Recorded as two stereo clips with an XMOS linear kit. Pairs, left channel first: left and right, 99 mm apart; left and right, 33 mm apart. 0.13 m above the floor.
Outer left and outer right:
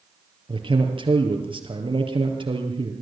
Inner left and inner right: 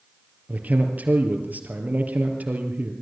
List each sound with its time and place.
0.5 s a man speaking: 60° right (ahead or behind), 3.5 m